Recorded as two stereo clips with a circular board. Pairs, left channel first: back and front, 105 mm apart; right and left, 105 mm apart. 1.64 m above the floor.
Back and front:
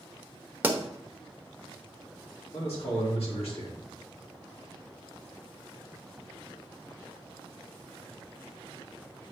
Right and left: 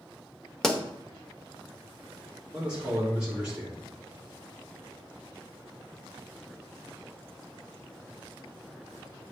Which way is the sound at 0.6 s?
15° right.